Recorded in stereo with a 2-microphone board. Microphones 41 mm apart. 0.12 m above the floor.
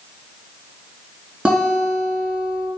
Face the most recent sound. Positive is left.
turn(degrees=-30)  # may be behind; listen again after turning